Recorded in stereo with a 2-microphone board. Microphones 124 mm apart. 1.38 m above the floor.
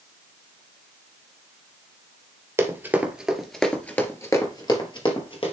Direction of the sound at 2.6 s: 20° right (ahead or behind).